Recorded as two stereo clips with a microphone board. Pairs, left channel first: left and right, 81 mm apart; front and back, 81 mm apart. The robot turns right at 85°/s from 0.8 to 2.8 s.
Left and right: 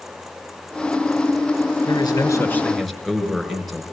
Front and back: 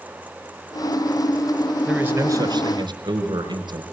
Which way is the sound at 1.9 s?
100° left.